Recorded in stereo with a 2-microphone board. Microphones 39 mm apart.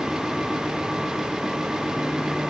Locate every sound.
Only background noise.